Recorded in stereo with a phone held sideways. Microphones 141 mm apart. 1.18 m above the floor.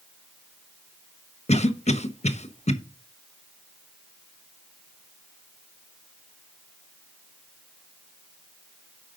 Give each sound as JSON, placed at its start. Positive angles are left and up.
{"t": 1.5, "sound": "a cough", "side_deg": 55, "distance_m": 0.9}